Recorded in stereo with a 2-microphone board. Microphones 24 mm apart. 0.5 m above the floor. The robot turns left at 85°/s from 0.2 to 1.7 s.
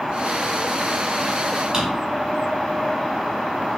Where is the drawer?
20° right (ahead or behind), 1.7 m.